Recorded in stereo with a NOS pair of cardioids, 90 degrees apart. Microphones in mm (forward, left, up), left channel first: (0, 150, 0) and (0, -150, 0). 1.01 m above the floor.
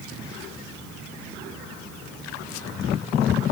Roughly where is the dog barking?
No dog barking in this recording.